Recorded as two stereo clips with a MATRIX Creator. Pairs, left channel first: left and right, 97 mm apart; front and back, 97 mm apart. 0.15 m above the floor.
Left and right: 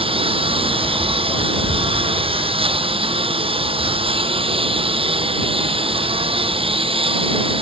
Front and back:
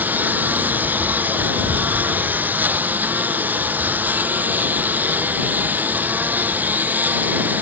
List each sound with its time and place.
0.0 s a lawn mower: 110° right